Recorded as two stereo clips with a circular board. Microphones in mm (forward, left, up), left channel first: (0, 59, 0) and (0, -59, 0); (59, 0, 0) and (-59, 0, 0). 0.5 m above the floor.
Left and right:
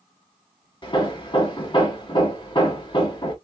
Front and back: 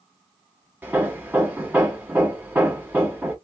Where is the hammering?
110° left, 1.3 m.